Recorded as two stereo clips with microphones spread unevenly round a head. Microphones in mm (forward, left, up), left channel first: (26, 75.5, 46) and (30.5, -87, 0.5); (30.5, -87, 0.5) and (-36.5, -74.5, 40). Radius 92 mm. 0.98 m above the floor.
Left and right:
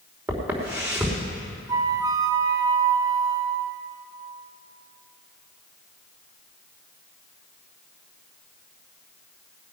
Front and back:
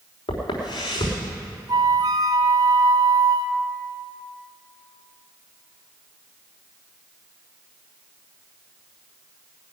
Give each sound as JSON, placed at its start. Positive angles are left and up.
{"t": 0.3, "sound": "footsteps", "azimuth_deg": -10, "distance_m": 5.0}
{"t": 1.7, "sound": "a flute", "azimuth_deg": -160, "distance_m": 0.7}